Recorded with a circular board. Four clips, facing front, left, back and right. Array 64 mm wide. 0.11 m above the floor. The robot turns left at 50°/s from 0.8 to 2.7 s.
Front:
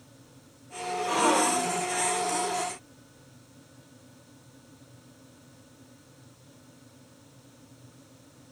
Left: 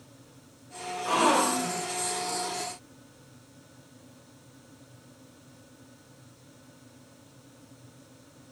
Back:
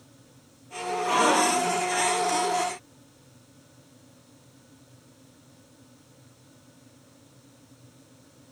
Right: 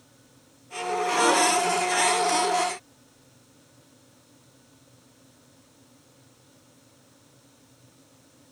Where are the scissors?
I don't hear scissors.